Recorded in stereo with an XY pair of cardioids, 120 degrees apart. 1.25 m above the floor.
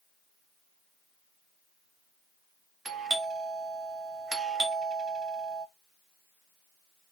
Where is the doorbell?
35° right, 0.9 m.